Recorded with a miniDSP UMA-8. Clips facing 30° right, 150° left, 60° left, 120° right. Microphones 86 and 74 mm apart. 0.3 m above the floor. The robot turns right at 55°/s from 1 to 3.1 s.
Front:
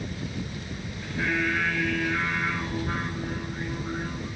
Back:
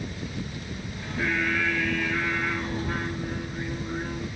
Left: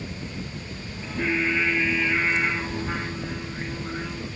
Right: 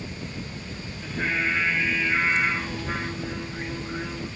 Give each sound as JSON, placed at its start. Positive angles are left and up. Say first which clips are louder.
{"t": 1.0, "sound": "singing", "louder": "even, left 2 dB", "azimuth_deg": -110, "distance_m": 5.5}